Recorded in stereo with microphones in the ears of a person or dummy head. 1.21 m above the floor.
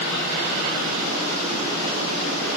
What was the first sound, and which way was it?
Only background noise.